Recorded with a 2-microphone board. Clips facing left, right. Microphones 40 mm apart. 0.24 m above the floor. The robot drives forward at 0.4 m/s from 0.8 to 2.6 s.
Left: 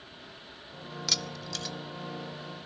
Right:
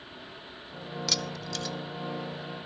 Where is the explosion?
I don't hear an explosion.